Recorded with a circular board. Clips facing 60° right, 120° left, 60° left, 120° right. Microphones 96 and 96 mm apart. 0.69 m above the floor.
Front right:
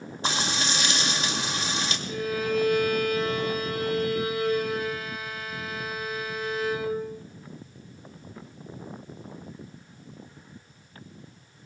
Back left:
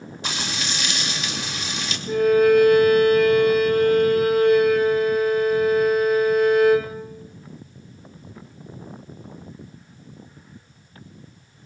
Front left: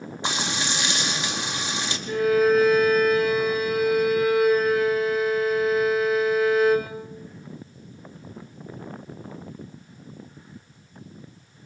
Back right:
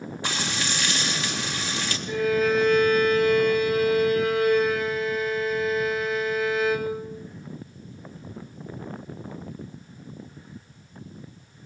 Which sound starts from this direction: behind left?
A violin, at 2.1 s.